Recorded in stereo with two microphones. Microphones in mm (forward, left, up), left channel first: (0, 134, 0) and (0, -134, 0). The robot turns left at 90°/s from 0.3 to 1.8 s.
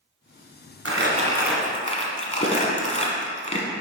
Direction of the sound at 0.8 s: 60° right (ahead or behind).